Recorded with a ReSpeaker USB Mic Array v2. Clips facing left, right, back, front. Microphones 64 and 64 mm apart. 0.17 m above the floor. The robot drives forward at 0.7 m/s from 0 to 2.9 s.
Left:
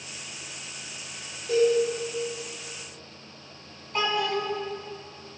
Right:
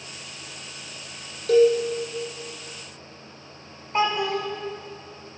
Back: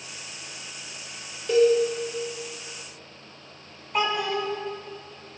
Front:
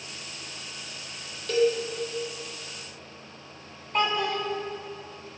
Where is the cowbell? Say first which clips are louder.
Right 5 dB, back 5 dB; 110° right, 1.4 m; by 1.8 s 115° right, 1.5 m.